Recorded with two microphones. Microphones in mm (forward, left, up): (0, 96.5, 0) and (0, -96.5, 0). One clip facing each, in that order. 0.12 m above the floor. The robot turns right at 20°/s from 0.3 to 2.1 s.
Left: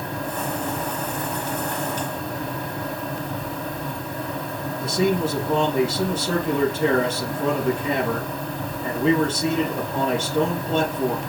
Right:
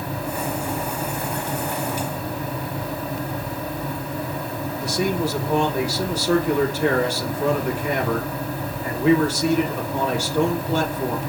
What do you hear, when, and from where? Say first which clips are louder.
4.8 s a man speaking: left 2 dB; 25° left (ahead or behind), 3.5 m